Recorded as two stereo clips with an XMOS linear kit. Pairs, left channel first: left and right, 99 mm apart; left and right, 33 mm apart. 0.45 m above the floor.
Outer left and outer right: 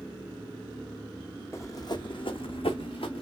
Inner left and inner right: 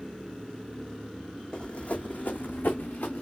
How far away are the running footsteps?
About 1.2 m.